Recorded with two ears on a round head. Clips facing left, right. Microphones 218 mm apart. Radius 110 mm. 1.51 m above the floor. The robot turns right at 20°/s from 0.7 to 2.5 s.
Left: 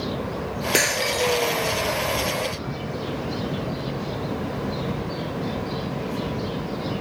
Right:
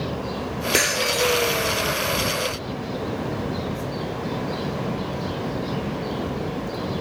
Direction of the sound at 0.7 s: Centre (ahead or behind).